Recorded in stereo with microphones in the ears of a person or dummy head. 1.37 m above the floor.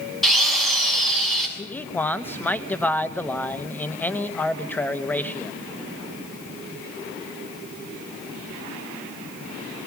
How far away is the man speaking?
About 1.1 m.